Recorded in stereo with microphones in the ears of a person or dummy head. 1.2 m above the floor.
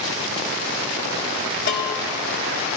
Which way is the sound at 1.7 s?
55° left (ahead or behind).